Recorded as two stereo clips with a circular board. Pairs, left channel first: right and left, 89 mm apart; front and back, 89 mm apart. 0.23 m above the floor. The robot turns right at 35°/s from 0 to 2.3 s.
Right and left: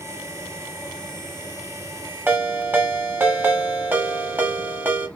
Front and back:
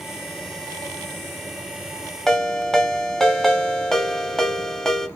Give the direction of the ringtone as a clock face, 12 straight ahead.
9 o'clock.